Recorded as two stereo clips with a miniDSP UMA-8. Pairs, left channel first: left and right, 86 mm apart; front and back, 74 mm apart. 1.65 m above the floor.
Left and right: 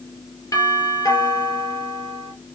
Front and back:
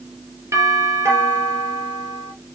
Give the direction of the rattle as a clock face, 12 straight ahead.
I don't hear a rattle.